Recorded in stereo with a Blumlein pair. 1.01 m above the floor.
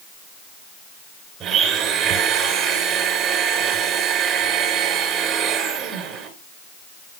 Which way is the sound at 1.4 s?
30° right.